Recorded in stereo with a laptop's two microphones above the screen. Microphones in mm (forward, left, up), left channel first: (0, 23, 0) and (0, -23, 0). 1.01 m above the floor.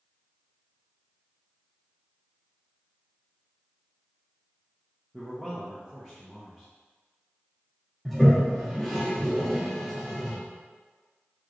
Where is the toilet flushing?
5° left (ahead or behind), 0.7 m.